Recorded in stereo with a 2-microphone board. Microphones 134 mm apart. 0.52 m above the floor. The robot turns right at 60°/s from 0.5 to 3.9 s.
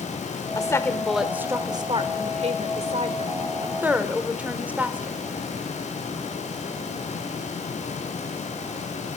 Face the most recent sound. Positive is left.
turn(degrees=-15)